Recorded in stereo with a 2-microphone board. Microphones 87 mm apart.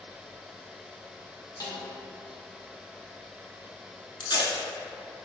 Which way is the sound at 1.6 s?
40° left (ahead or behind).